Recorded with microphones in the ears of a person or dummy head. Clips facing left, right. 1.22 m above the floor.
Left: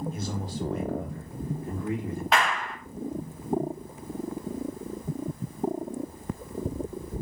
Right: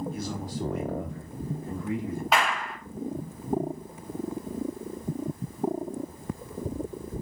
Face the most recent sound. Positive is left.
turn(degrees=0)  # may be behind; listen again after turning